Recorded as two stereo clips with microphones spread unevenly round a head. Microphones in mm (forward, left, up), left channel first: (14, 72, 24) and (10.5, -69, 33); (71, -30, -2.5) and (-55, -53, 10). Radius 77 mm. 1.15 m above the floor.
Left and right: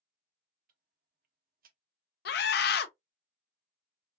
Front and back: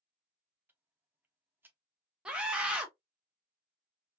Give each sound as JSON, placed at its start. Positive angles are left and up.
{"t": 0.7, "sound": "ticking", "azimuth_deg": -95, "distance_m": 1.0}
{"t": 2.2, "sound": "a scream", "azimuth_deg": 105, "distance_m": 0.7}